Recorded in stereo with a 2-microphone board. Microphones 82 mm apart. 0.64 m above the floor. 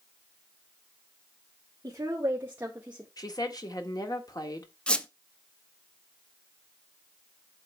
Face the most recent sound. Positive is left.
turn(degrees=10)  # may be behind; listen again after turning